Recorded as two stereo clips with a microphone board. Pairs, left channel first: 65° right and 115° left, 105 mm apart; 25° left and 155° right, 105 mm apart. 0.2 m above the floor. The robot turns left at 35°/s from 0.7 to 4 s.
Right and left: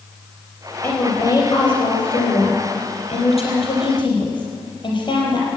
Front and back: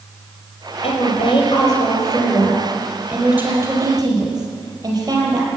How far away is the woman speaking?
About 4.5 m.